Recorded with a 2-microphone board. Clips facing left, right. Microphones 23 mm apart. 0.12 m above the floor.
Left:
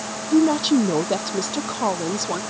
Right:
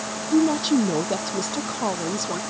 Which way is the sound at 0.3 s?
15° left (ahead or behind).